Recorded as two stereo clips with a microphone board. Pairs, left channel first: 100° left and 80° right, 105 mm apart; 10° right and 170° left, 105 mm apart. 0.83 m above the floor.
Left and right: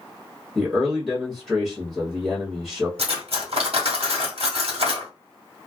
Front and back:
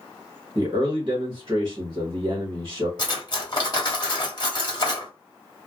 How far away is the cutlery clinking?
About 1.1 m.